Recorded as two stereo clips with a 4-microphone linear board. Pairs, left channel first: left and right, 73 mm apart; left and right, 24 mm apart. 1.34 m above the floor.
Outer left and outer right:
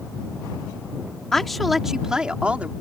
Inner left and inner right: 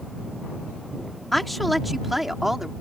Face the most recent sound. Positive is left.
turn(degrees=-20)  # may be behind; listen again after turning